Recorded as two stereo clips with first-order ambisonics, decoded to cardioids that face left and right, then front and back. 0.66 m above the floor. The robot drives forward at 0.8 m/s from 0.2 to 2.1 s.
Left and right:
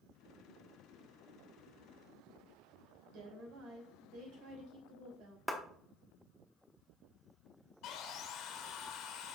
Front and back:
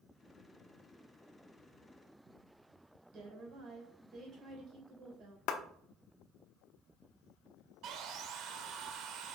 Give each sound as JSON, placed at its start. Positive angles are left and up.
{"t": 3.1, "sound": "a woman speaking", "azimuth_deg": -125, "distance_m": 3.0}
{"t": 5.5, "sound": "a clap", "azimuth_deg": 0, "distance_m": 0.9}
{"t": 7.8, "sound": "sawing", "azimuth_deg": 135, "distance_m": 1.0}